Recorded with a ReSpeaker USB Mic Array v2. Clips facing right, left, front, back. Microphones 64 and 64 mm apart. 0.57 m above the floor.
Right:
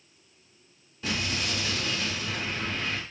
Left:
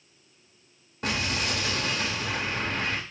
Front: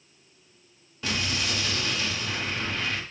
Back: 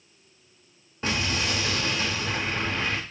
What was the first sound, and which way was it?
An explosion, 125° left.